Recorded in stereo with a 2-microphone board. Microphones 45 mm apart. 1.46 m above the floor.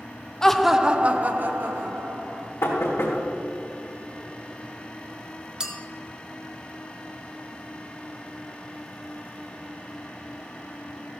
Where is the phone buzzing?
I don't hear a phone buzzing.